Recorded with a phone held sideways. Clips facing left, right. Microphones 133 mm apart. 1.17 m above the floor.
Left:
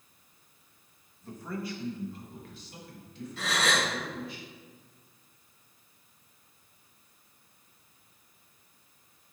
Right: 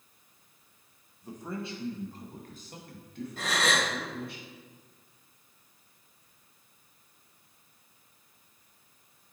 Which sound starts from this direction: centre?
A man speaking, at 1.2 s.